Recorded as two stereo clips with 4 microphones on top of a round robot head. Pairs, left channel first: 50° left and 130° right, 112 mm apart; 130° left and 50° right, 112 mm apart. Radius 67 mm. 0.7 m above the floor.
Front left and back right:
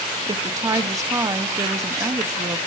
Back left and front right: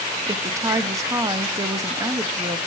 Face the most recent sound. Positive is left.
turn(degrees=-90)